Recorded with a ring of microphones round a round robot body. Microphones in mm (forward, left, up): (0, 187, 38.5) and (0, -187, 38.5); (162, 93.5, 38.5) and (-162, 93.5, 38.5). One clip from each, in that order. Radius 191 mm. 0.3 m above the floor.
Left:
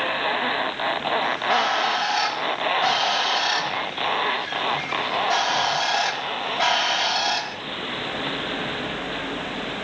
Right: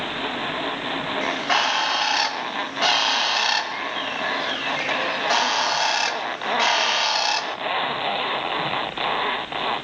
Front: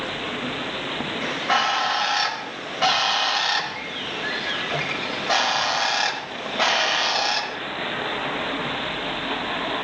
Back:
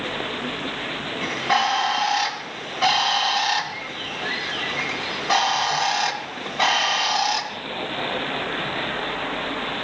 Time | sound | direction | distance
1.2 | a bird | 75° right | 1.0 m